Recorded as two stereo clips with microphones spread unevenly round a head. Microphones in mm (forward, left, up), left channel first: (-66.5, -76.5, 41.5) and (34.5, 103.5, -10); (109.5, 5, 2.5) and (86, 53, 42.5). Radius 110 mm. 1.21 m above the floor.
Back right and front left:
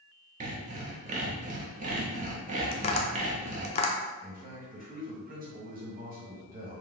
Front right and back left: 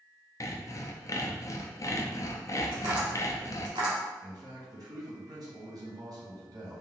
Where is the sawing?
Straight ahead, 0.6 m.